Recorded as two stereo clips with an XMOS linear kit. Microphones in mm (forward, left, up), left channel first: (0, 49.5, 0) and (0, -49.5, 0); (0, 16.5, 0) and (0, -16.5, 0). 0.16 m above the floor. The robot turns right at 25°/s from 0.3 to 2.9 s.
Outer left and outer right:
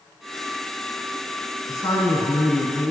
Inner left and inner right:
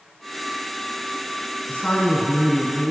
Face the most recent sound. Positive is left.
turn(degrees=115)